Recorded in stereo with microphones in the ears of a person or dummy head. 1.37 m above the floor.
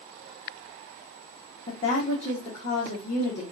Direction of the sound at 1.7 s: 35° left (ahead or behind).